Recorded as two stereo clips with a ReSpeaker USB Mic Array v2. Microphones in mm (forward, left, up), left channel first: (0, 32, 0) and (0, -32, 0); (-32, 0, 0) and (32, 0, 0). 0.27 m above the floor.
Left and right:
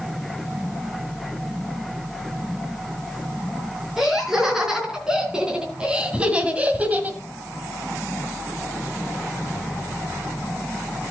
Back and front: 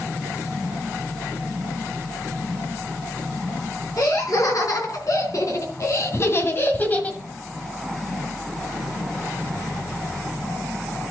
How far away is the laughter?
About 4 m.